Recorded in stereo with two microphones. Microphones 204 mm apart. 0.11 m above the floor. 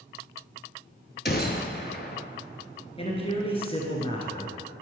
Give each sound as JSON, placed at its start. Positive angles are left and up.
{"t": 1.2, "sound": "a gunshot", "side_deg": 50, "distance_m": 0.9}
{"t": 3.0, "sound": "a man speaking", "side_deg": 25, "distance_m": 1.7}